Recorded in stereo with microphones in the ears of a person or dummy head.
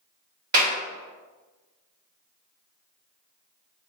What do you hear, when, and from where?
0.5 s a clap: 50° right (ahead or behind), 2 m